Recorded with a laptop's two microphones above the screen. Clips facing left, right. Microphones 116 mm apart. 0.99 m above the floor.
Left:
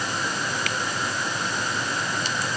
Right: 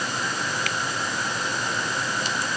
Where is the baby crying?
No baby crying in this recording.